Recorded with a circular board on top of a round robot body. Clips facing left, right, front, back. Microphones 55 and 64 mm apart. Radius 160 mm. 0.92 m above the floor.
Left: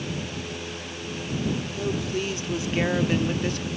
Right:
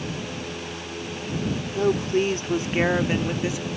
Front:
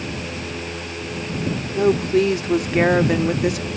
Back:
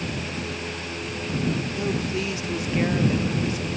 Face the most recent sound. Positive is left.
turn(degrees=-5)